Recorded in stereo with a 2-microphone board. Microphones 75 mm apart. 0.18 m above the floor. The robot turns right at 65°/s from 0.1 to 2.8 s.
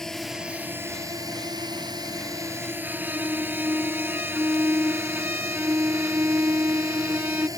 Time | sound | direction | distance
0.0 | a drone | 5° left (ahead or behind) | ?
2.8 | a violin | 25° right (ahead or behind) | ?